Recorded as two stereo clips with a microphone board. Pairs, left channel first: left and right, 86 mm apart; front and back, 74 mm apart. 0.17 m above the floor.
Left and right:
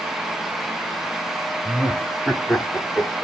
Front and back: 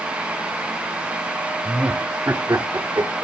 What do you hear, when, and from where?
1.6 s laughter: 140° right, 1.1 m; by 3.2 s 175° left, 2.5 m